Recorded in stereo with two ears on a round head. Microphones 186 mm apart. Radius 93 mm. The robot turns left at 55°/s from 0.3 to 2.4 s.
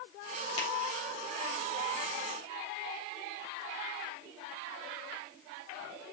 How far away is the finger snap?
About 3.5 m.